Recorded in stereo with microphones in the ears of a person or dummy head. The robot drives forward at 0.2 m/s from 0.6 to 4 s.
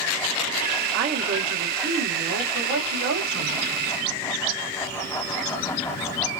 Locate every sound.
0.9 s a woman speaking: 65° right (ahead or behind), 1.5 m; by 3.6 s 50° right (ahead or behind), 1.8 m